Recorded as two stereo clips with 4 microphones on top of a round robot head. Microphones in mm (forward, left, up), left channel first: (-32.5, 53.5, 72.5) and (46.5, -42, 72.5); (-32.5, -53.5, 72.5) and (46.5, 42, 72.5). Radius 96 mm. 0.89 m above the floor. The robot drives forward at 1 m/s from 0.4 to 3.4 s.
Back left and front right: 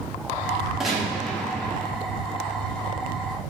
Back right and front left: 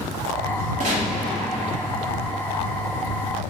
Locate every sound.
0.8 s a gunshot: 35° left, 2.5 m; by 1.9 s 65° left, 1.7 m